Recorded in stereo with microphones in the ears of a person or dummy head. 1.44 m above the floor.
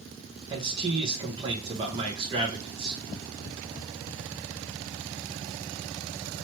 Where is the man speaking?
30° right (ahead or behind), 1.2 m.